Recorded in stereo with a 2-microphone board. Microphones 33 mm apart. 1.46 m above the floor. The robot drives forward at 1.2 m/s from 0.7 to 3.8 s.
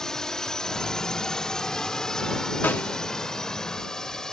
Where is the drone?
15° left (ahead or behind); by 4.3 s 20° left (ahead or behind).